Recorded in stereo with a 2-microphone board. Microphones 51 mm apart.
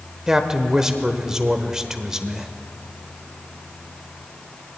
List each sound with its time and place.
0.3 s a man speaking: 10° right (ahead or behind), 0.9 m